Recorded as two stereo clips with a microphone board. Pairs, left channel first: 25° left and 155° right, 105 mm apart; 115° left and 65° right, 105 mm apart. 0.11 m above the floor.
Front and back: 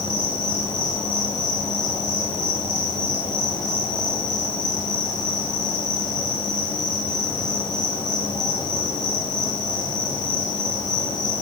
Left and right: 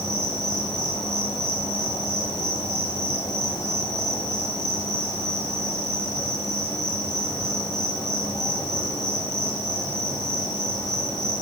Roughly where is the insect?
Ahead left.